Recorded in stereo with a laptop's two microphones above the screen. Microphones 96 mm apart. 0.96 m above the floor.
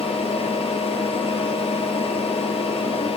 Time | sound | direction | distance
0.0 | a fan | 70° left (ahead or behind) | 0.7 m